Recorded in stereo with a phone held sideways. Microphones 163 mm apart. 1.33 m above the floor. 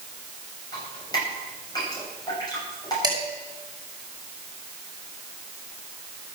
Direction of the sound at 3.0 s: 25° right (ahead or behind).